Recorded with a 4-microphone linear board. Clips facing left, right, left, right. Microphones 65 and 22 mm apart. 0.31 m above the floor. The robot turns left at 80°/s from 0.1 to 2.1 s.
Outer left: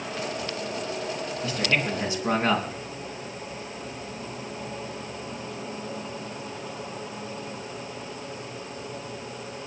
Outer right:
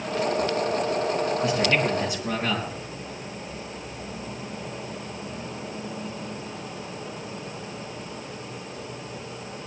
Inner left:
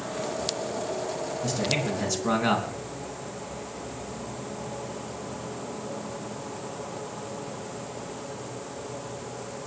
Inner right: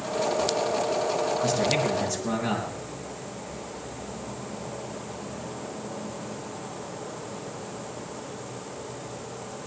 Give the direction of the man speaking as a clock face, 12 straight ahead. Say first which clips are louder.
Outer right 1 dB, even; 6 o'clock.